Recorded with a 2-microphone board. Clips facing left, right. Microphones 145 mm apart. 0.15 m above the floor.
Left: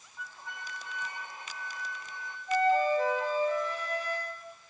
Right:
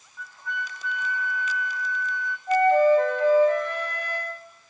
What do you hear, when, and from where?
0.2 s a flute: 20° left (ahead or behind), 6 m
2.5 s a flute: 65° right (ahead or behind), 2.5 m